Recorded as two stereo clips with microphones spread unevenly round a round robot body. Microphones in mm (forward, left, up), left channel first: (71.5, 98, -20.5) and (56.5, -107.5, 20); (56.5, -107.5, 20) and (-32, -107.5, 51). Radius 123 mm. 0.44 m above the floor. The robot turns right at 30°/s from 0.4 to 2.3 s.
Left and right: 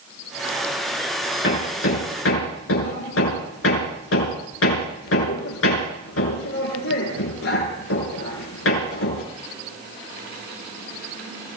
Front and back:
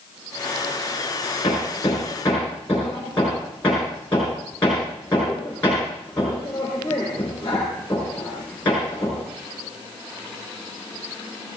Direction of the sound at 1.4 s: 50° left.